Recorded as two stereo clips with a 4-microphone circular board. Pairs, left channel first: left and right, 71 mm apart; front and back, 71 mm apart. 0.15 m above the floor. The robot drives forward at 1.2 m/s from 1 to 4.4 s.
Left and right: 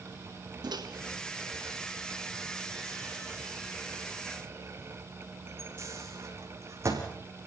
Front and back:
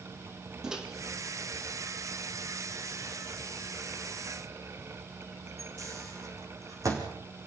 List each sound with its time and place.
0.6 s a microwave: 100° right, 4 m; by 7.0 s 140° right, 6.5 m